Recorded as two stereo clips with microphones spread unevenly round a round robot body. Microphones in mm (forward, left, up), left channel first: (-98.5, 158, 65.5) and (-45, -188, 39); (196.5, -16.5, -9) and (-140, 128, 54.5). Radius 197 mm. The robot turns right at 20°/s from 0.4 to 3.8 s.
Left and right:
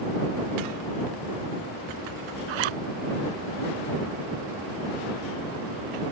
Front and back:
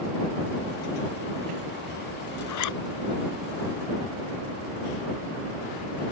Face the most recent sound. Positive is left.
turn(degrees=-50)